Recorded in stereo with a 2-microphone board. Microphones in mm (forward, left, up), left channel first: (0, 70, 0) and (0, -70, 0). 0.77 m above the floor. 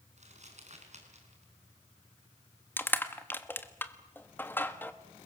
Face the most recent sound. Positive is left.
turn(degrees=15)  # may be behind; listen again after turning